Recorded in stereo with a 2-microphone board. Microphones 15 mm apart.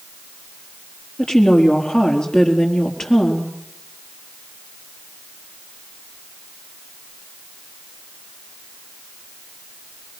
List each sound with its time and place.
1.2 s a woman speaking: 70° left (ahead or behind), 4.5 m